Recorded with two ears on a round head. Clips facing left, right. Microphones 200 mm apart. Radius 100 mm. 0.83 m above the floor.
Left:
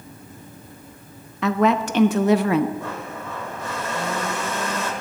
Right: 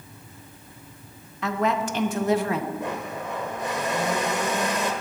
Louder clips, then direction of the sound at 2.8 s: Right 1 dB; 15° right (ahead or behind).